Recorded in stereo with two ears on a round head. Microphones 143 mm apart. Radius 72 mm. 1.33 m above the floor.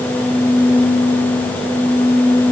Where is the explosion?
No explosion in this recording.